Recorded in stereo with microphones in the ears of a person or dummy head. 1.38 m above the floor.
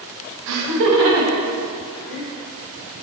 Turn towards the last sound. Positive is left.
turn(degrees=-65)  # may be behind; listen again after turning